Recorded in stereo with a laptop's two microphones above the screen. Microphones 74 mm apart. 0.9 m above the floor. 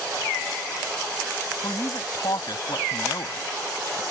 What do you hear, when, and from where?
1.6 s a man speaking: 60° left (ahead or behind)